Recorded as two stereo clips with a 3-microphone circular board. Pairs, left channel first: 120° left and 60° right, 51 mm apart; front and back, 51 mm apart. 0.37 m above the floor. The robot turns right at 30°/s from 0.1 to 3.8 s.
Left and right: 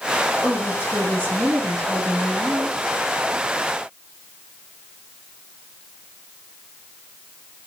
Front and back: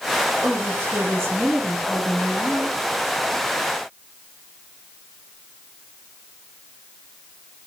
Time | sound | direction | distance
0.4 | a woman speaking | 165° left | 1.7 m